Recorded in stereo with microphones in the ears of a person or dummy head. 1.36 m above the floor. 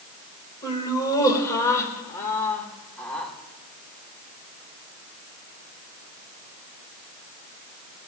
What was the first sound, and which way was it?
Laughter, 20° left (ahead or behind).